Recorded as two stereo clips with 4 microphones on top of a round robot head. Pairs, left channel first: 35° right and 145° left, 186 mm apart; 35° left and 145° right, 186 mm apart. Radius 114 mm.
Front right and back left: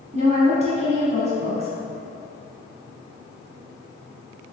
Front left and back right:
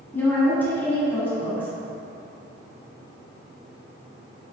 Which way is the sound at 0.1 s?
110° left.